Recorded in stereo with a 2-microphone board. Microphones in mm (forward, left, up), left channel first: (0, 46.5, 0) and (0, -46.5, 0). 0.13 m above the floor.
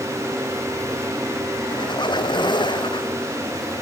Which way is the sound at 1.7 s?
50° left (ahead or behind).